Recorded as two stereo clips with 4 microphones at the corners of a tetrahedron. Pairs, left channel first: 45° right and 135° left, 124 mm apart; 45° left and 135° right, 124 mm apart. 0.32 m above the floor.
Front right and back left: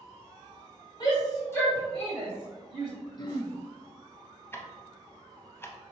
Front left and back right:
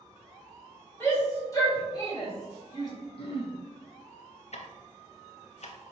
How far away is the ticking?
About 0.5 m.